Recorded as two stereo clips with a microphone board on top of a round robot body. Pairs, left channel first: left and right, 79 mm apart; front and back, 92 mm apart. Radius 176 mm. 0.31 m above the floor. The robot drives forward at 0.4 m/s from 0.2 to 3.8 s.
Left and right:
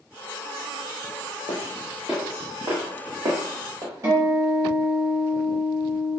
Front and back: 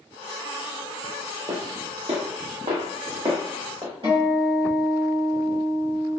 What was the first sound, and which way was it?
Footsteps, 140° left.